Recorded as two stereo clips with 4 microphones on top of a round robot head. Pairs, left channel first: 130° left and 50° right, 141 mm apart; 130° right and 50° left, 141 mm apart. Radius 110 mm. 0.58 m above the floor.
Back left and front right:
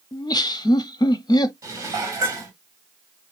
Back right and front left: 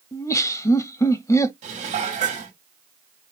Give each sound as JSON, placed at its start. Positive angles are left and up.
{"t": 0.1, "sound": "laughter", "azimuth_deg": 175, "distance_m": 0.9}
{"t": 1.6, "sound": "dishes clattering", "azimuth_deg": 15, "distance_m": 1.5}